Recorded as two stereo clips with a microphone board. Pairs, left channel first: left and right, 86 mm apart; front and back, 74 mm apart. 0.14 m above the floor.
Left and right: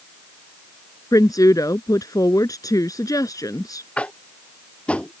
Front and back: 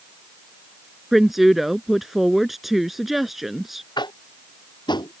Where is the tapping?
15° left.